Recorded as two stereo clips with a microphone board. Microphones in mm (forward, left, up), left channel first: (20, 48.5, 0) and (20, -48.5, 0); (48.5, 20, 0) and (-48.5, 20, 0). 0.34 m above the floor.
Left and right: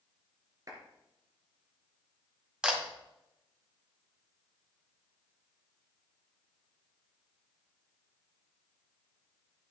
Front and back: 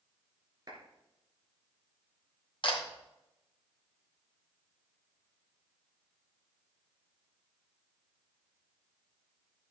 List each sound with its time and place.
0.7 s a clap: 140° right, 4 m
2.6 s a camera shutter: 10° right, 2 m